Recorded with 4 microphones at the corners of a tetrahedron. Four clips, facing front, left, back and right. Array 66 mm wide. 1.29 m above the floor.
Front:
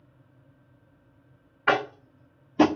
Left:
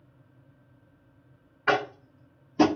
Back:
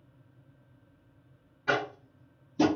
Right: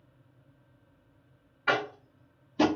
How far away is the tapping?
About 0.6 m.